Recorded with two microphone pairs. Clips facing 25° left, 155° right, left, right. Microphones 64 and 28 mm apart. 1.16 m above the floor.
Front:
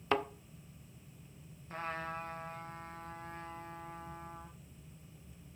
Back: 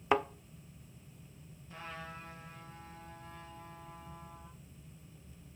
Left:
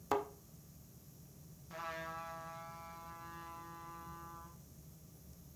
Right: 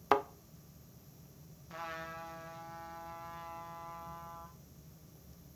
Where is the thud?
90° right, 0.6 m.